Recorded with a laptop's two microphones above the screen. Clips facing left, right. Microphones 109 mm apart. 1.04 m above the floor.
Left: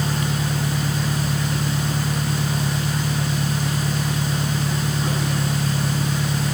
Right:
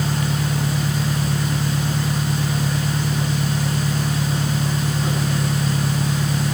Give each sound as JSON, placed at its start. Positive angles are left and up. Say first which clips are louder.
{"t": 0.0, "sound": "an engine running", "louder": "right 1 dB", "side_deg": 0}